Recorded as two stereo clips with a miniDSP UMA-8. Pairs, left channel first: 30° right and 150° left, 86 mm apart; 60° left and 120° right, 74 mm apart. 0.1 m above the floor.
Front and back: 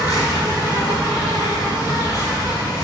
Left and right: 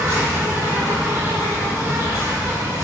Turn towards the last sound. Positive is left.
turn(degrees=-70)